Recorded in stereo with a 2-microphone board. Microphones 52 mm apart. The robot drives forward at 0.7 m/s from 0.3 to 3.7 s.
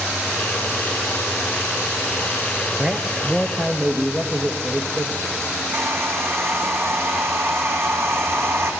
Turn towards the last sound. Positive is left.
turn(degrees=-55)  # may be behind; listen again after turning